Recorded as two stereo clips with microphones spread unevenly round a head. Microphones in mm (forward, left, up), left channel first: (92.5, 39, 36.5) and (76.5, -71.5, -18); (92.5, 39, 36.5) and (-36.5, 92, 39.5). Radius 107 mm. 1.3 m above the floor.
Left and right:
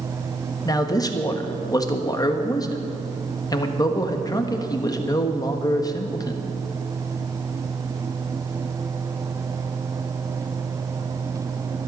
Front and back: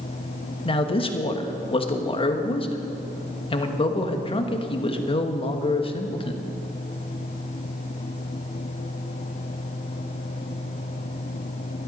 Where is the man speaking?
30° left, 1.4 m.